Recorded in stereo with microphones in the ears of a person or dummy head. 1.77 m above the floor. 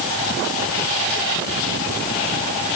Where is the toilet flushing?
I don't hear a toilet flushing.